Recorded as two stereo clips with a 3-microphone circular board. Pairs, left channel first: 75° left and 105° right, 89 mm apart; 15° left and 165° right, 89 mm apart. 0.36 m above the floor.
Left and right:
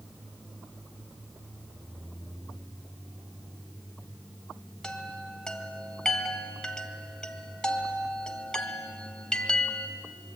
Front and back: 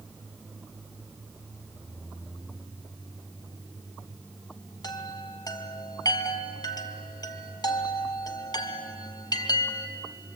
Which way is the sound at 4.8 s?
5° right.